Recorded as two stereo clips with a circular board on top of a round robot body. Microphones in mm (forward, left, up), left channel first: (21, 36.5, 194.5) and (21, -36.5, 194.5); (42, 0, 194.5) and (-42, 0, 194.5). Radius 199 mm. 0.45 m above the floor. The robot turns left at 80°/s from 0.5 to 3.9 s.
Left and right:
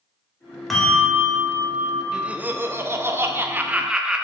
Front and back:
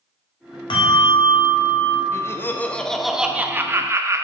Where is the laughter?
15° right, 1.1 m; by 4.2 s 160° right, 1.1 m.